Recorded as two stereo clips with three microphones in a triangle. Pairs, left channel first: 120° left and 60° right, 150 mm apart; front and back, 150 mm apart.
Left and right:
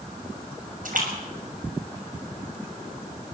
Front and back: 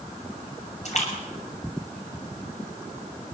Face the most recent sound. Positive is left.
turn(degrees=-40)